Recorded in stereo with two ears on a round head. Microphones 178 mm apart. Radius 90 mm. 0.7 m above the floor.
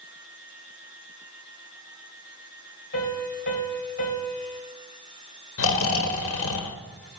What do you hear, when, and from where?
2.9 s a piano: 55° left (ahead or behind), 3 m
5.6 s snoring: 80° left, 1.0 m